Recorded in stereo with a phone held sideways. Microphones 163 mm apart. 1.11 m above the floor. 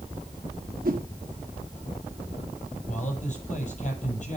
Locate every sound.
0.8 s a whoosh: 65° right (ahead or behind), 0.9 m
2.9 s a man speaking: 50° left (ahead or behind), 5.5 m